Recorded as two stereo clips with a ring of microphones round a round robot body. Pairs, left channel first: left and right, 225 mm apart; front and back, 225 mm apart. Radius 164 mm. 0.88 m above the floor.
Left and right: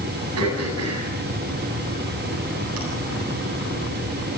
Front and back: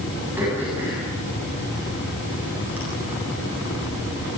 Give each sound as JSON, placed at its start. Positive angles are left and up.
{"t": 0.4, "sound": "throat clearing", "azimuth_deg": -95, "distance_m": 9.0}